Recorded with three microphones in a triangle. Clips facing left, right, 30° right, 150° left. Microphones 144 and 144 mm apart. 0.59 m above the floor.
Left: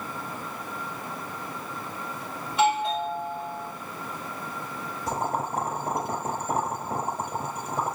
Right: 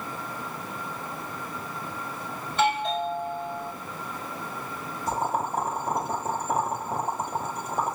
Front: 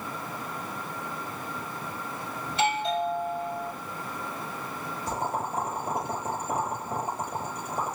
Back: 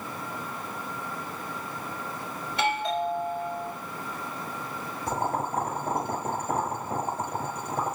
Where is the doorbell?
170° left, 4 m.